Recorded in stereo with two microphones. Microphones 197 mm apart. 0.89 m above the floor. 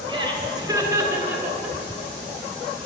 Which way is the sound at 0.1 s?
25° right (ahead or behind).